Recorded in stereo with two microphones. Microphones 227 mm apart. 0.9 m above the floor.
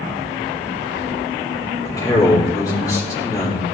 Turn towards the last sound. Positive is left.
turn(degrees=15)  # may be behind; listen again after turning